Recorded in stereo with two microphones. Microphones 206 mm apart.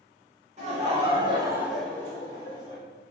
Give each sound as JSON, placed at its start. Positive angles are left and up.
{"t": 0.6, "sound": "laughter", "side_deg": -35, "distance_m": 1.5}